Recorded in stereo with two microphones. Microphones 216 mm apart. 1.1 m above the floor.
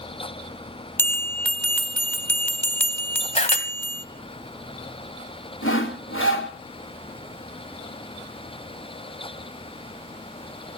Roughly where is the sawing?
Left.